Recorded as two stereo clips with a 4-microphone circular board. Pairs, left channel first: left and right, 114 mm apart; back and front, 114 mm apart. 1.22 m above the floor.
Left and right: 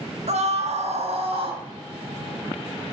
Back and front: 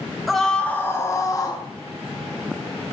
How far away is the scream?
About 1.8 m.